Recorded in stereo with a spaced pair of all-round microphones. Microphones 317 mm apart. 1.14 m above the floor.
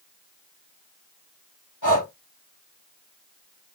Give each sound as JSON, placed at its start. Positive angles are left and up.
{"t": 1.8, "sound": "breathing", "side_deg": 70, "distance_m": 1.4}